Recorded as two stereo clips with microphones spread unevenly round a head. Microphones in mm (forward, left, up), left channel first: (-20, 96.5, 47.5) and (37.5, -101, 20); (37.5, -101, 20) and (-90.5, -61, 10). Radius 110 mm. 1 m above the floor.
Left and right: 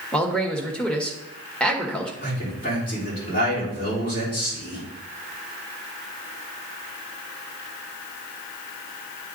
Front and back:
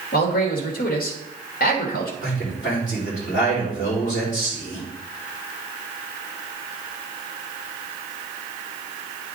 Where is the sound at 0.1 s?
20° left, 1.3 m.